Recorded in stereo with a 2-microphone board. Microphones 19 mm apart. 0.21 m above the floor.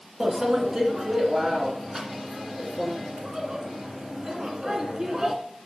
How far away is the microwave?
About 1.9 m.